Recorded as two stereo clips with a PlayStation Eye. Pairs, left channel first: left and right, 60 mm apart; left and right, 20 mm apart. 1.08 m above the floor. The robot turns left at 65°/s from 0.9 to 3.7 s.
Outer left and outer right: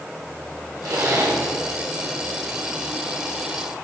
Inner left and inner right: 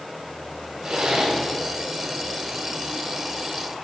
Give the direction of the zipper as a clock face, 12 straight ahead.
3 o'clock.